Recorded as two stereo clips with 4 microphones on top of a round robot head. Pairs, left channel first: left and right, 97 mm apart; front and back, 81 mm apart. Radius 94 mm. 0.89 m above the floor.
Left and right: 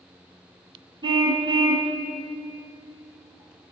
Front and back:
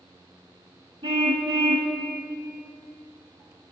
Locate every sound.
1.0 s a car horn: 135° right, 3 m